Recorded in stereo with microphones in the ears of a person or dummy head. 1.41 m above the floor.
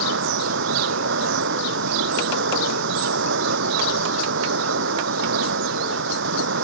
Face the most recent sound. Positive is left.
turn(degrees=-70)  # may be behind; listen again after turning